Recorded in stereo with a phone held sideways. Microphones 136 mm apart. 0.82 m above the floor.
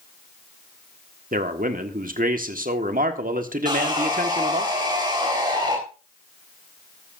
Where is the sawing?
30° right (ahead or behind), 4 m.